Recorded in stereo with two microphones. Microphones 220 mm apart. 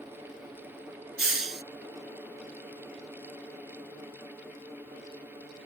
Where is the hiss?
80° right.